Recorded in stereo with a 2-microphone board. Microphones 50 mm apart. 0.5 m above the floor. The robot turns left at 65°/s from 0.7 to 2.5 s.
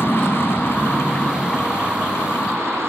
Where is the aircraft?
55° left; by 2.9 s 65° right.